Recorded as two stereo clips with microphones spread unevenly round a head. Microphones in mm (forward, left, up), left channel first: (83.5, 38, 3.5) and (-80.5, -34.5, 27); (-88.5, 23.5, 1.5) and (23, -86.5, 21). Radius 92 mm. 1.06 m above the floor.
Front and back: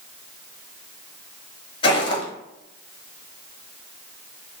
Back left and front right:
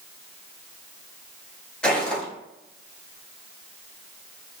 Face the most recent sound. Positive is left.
turn(degrees=40)